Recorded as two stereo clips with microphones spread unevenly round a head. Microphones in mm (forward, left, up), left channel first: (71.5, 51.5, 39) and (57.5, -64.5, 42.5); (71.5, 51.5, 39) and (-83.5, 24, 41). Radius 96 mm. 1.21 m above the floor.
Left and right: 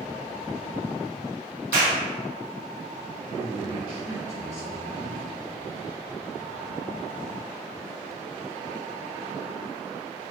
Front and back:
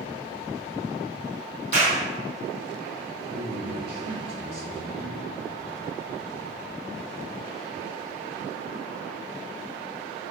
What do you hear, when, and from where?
1.7 s a clap: 115° right, 1.0 m
3.3 s a man speaking: 140° right, 1.6 m